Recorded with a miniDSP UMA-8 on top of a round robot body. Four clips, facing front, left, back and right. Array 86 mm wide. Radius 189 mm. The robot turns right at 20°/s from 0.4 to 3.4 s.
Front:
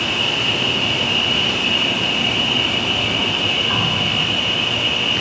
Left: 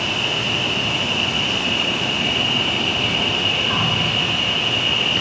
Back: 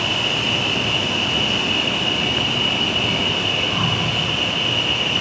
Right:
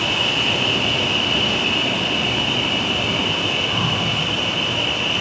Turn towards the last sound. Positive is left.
turn(degrees=20)